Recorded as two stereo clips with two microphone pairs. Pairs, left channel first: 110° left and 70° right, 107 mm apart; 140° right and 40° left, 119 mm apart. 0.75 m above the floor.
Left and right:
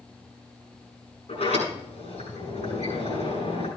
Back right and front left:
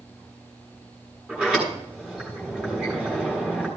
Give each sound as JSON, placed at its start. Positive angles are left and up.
{"t": 1.3, "sound": "a sliding door", "azimuth_deg": 115, "distance_m": 7.0}